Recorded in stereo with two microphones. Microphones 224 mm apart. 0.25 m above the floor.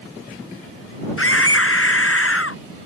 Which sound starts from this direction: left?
A scream, at 1.2 s.